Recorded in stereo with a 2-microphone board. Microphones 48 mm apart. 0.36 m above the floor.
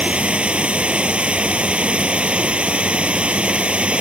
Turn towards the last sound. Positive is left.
turn(degrees=-25)  # may be behind; listen again after turning